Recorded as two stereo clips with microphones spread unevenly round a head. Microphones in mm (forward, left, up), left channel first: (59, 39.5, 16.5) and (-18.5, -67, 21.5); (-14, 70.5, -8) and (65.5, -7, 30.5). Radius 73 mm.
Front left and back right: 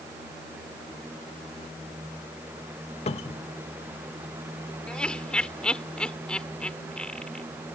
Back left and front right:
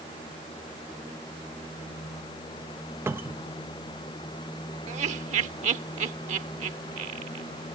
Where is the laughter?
30° right.